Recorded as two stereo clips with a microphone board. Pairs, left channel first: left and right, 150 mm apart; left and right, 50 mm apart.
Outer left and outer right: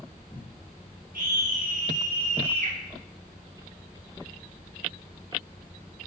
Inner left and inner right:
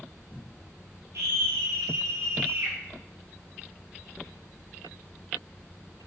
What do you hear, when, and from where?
1.1 s a scream: 90° right, 4.5 m; by 2.8 s 80° right, 4.5 m